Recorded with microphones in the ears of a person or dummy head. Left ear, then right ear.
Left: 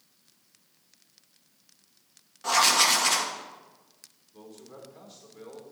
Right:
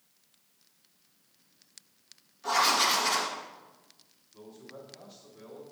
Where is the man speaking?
40° left (ahead or behind), 2.5 m.